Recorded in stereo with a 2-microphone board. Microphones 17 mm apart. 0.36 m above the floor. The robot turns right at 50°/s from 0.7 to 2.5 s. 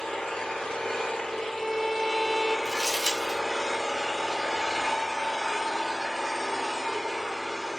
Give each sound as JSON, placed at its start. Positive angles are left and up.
{"t": 0.0, "sound": "an engine running", "azimuth_deg": 80, "distance_m": 1.0}
{"t": 1.3, "sound": "a violin", "azimuth_deg": 160, "distance_m": 0.8}
{"t": 2.6, "sound": "crumpling", "side_deg": 5, "distance_m": 1.0}